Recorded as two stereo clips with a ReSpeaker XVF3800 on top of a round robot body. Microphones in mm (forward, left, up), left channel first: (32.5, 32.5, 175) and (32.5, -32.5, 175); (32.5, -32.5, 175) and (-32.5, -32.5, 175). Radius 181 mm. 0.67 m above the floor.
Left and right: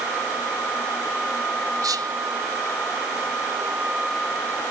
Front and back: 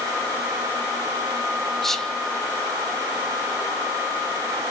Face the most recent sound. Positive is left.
turn(degrees=-85)